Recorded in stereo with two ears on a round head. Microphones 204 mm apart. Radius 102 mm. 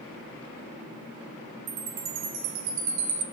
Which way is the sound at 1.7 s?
70° right (ahead or behind).